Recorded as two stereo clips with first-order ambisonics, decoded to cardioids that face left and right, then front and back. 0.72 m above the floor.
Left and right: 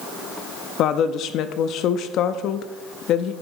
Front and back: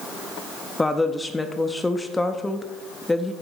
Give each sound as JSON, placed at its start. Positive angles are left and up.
{"t": 0.8, "sound": "a woman speaking", "azimuth_deg": 80, "distance_m": 0.5}